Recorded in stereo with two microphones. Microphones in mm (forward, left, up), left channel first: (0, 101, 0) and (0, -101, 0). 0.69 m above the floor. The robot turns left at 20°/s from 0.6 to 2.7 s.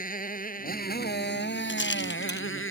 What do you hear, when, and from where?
0.0 s a motorcycle: 135° left; by 2.7 s 95° left
1.7 s a rattle: 65° left (ahead or behind); by 2.5 s 55° left (ahead or behind)